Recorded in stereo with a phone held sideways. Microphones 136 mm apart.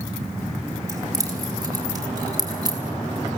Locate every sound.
0.9 s keys jangling: 25° right (ahead or behind), 4.5 m; by 2.8 s 30° right (ahead or behind), 5.5 m